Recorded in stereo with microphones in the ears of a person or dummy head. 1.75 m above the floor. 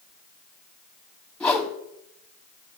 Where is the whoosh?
5° left (ahead or behind), 0.9 m.